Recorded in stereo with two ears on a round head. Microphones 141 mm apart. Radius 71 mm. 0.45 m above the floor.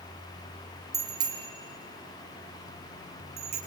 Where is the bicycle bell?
25° right (ahead or behind), 5.5 m; by 3.6 s 45° right (ahead or behind), 8 m.